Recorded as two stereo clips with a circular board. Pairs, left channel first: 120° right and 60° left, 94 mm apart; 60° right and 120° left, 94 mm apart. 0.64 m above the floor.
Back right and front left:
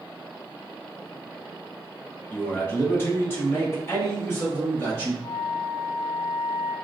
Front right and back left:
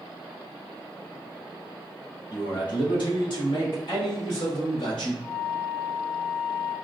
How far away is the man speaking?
About 1.0 m.